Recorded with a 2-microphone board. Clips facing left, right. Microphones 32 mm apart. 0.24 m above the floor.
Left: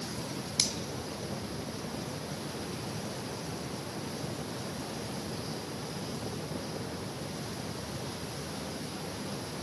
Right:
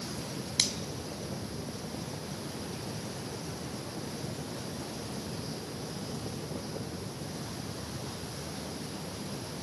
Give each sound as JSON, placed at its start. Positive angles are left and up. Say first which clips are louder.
{"t": 0.6, "sound": "a finger snap", "louder": "right 2 dB", "side_deg": -40, "distance_m": 1.7}